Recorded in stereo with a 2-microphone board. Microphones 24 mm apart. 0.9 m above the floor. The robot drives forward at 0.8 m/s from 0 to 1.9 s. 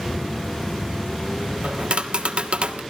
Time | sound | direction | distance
1.6 | tapping | 70° right (ahead or behind) | 1.3 m